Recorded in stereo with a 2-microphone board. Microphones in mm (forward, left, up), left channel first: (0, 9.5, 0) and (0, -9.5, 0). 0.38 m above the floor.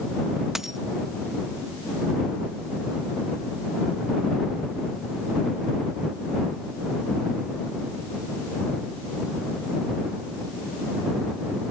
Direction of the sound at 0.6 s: 20° right (ahead or behind).